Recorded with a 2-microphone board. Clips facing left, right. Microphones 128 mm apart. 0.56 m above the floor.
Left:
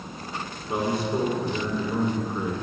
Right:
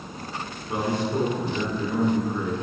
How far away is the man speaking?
About 6.5 m.